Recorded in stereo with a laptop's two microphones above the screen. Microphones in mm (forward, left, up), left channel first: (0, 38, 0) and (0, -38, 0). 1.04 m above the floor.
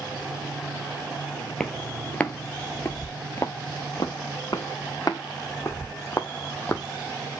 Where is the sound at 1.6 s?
5° left (ahead or behind), 1.3 m; by 4.1 s 50° left (ahead or behind), 1.6 m.